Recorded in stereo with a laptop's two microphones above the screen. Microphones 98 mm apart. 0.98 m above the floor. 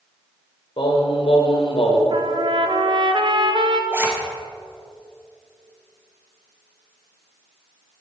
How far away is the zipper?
About 1.0 m.